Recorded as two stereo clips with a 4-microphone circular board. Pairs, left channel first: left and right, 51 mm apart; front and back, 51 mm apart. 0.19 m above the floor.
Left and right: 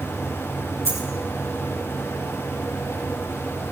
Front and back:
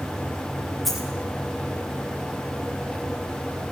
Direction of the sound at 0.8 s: 90° right.